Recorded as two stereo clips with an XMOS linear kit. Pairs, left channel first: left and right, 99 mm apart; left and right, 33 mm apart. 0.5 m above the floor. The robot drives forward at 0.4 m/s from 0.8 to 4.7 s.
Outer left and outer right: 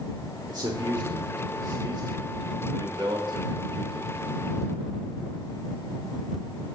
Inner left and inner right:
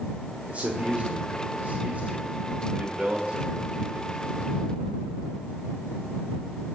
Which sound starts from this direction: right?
A man speaking, at 0.5 s.